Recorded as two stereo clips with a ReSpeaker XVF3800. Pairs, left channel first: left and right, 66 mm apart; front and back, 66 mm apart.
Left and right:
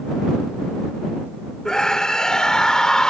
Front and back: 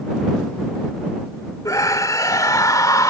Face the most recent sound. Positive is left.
turn(degrees=15)